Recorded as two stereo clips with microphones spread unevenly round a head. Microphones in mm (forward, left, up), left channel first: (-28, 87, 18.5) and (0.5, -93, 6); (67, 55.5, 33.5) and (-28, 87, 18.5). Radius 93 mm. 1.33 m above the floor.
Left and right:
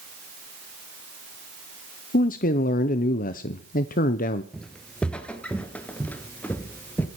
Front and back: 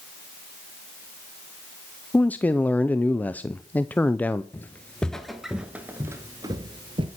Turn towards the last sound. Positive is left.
turn(degrees=170)